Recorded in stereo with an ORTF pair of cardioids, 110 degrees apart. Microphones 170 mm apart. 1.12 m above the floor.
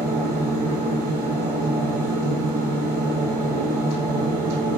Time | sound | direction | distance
0.0 | a machine running | 60° right | 1.2 m